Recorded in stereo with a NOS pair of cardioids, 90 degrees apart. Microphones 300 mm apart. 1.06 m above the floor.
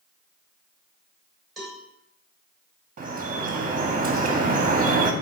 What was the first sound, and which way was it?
A cowbell, straight ahead.